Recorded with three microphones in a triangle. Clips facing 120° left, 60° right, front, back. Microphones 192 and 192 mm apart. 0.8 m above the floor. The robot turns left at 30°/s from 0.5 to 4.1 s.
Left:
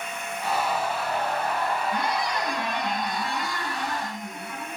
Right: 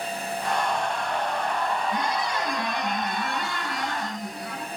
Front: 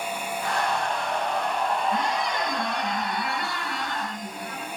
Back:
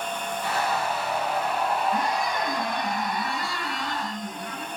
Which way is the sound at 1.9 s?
15° left.